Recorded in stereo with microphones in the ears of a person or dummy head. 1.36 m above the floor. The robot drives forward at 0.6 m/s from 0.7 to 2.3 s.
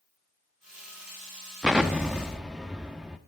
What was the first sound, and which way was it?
An explosion, centre (ahead or behind).